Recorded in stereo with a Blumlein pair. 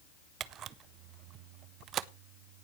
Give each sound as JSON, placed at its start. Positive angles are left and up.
{"t": 0.4, "sound": "a camera shutter", "azimuth_deg": -30, "distance_m": 0.6}